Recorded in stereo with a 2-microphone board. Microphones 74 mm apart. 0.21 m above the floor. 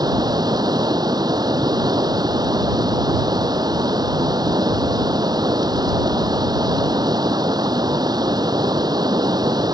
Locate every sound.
0.0 s running water: 65° right (ahead or behind)